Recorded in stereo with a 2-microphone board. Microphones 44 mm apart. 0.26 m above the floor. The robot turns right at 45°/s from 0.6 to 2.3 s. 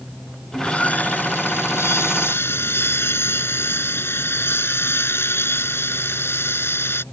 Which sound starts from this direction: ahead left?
Sawing, at 0.5 s.